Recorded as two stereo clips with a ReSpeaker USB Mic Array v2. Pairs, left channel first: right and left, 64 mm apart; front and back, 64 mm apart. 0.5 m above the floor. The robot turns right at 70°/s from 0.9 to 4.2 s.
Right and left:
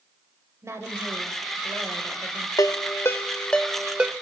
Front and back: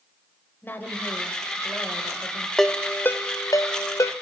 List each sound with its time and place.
0.6 s a woman speaking: 55° left, 2 m; by 2.5 s 165° left, 2 m
2.6 s a ringtone: 85° right, 0.7 m; by 4.1 s 25° left, 0.7 m